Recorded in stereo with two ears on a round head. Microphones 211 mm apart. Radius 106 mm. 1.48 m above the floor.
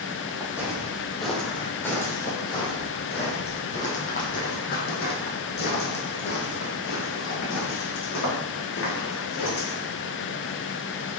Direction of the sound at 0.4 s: 10° right (ahead or behind).